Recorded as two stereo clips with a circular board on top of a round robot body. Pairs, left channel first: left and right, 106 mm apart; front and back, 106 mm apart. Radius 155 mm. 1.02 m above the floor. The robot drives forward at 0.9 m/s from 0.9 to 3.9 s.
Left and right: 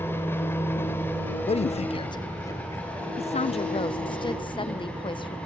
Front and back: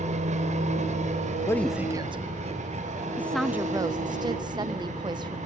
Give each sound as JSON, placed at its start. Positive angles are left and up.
{"t": 0.0, "sound": "an engine running", "azimuth_deg": 160, "distance_m": 3.0}
{"t": 1.5, "sound": "a man speaking", "azimuth_deg": 60, "distance_m": 0.5}
{"t": 3.2, "sound": "a woman speaking", "azimuth_deg": 70, "distance_m": 0.7}